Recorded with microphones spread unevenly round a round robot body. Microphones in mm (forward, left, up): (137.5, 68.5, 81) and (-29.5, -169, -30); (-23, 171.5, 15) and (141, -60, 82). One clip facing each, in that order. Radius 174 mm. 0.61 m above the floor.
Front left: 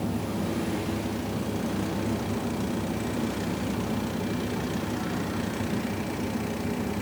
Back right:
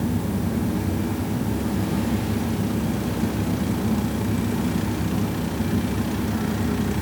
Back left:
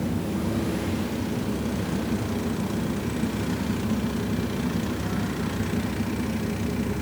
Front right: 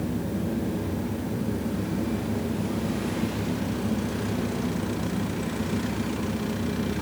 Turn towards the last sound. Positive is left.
No sound to turn to.